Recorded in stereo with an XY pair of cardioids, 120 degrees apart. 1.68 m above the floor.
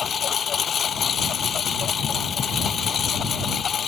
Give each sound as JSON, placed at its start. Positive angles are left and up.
{"t": 0.0, "sound": "a lawn mower", "azimuth_deg": 40}